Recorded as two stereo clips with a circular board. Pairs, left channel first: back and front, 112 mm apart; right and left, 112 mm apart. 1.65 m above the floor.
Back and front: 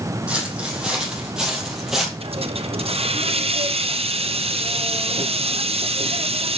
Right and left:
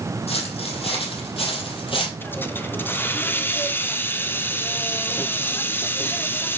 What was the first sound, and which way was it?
Footsteps, 80° right.